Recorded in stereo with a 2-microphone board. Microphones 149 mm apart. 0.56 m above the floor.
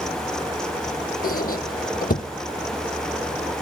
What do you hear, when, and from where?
1.2 s a squeak: 70° left (ahead or behind), 0.6 m